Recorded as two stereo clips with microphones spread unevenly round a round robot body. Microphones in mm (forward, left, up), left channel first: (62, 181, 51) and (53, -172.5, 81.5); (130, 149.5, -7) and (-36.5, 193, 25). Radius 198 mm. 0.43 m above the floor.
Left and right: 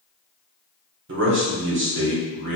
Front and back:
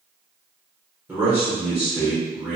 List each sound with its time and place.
1.1 s a man speaking: 105° right, 0.9 m